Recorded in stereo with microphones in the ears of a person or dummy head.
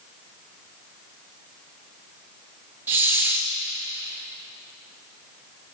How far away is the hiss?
About 1.5 m.